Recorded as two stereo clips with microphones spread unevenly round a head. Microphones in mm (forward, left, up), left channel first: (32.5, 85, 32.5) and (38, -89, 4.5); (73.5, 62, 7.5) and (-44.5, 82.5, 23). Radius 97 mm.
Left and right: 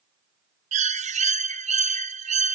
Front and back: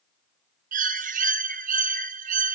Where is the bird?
145° right, 0.6 m.